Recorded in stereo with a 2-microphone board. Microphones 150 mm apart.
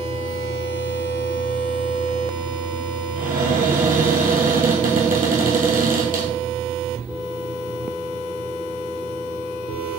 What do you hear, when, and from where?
3.2 s a cupboard door: 65° right (ahead or behind), 2 m